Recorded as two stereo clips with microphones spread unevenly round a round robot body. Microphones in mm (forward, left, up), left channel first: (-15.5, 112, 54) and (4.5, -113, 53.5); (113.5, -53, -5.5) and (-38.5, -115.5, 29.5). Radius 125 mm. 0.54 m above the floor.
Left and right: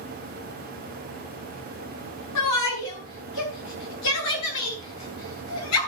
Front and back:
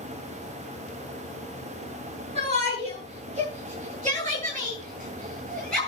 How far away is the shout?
About 10 m.